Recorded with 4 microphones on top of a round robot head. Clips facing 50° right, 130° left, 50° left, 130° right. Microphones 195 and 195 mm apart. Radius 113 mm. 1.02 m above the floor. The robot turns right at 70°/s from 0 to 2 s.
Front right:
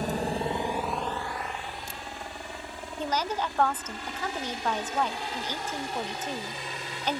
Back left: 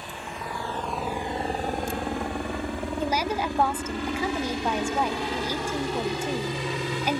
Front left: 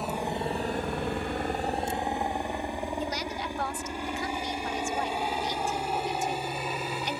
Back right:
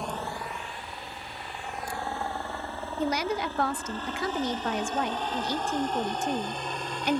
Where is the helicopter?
35° right; by 7.2 s 135° left.